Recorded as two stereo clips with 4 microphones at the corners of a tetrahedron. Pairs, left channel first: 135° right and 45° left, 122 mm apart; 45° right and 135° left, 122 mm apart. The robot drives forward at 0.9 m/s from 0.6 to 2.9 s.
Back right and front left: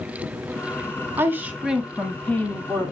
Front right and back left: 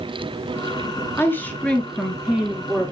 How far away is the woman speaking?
About 1.6 m.